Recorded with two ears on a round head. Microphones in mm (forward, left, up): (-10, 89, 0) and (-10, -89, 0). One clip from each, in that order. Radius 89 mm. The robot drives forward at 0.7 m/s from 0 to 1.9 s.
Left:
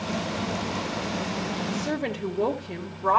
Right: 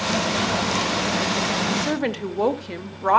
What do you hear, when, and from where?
1.7 s a woman speaking: 45° right (ahead or behind), 1.4 m; by 3.2 s 40° right (ahead or behind), 1.5 m